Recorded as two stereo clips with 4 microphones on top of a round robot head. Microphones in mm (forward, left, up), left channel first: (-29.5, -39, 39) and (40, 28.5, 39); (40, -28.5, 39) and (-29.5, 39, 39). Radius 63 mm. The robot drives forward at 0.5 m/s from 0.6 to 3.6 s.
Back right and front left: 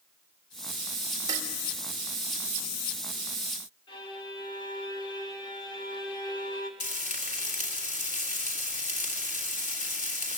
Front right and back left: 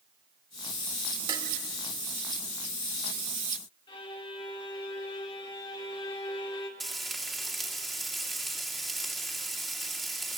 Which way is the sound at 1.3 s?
100° left.